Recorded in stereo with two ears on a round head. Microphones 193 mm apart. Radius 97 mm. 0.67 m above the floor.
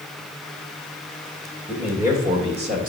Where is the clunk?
No clunk in this recording.